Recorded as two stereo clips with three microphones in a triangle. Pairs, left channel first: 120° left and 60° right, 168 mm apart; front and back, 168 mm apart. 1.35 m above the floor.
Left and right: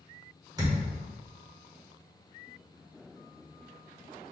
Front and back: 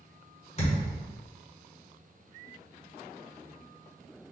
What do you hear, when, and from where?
0.6 s a thud: 10° right, 1.2 m